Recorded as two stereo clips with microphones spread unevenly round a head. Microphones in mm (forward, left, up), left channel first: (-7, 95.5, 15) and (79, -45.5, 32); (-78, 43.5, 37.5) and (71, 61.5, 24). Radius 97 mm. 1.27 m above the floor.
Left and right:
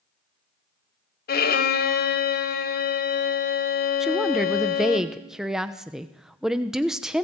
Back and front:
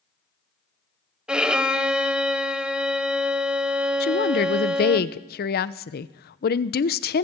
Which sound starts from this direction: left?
A violin, at 1.3 s.